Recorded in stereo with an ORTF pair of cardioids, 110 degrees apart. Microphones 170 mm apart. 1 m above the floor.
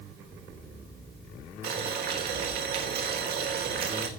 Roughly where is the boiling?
Right.